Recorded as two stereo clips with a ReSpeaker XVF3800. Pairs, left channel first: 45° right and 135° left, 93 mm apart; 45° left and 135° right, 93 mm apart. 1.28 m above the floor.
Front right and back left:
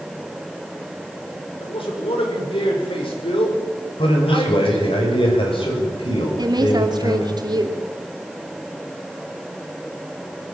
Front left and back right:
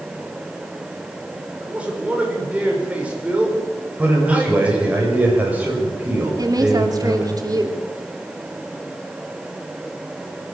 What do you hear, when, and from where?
1.6 s a man speaking: 60° right, 6 m
4.0 s a man speaking: 60° right, 6.5 m
6.4 s a woman speaking: 175° left, 3 m